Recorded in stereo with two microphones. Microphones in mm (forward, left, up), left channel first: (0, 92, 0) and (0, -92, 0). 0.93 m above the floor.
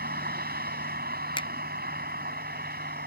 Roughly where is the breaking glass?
No breaking glass in this recording.